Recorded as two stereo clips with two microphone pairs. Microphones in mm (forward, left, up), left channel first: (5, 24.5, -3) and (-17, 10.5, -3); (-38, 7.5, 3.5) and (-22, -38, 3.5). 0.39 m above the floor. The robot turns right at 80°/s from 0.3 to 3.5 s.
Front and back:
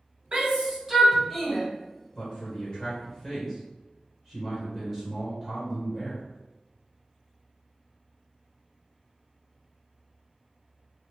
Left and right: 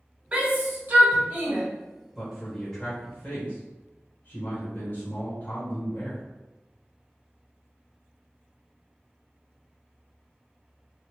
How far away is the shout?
About 1.2 m.